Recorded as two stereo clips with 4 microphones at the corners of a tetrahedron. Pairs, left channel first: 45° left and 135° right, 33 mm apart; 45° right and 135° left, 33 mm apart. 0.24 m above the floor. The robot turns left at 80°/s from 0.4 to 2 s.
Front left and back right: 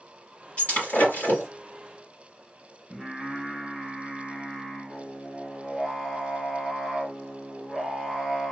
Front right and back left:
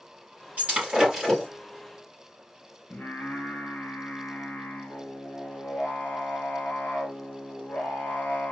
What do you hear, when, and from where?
0.6 s breaking glass: 95° left, 3.5 m; by 1.5 s 20° left, 3.5 m
2.9 s singing: 45° right, 2.5 m